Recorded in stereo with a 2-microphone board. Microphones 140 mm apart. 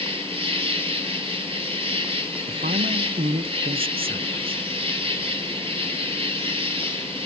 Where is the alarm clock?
No alarm clock in this recording.